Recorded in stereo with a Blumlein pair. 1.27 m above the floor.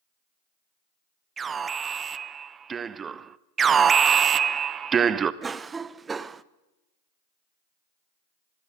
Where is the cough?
15° right, 0.6 m.